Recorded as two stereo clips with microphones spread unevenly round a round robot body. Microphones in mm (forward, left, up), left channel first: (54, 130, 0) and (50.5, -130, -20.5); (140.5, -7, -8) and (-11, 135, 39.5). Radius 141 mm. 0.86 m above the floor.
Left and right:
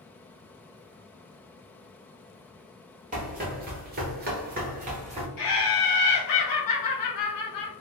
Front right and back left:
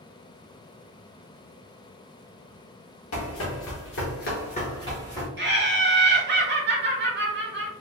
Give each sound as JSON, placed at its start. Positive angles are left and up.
{"t": 3.1, "sound": "running footsteps", "azimuth_deg": -35, "distance_m": 1.3}
{"t": 5.4, "sound": "laughter", "azimuth_deg": 95, "distance_m": 1.1}